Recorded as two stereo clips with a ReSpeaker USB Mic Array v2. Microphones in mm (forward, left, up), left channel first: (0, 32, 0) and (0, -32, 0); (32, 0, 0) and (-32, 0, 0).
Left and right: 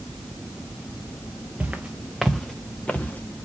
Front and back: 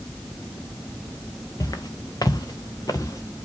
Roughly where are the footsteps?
Ahead.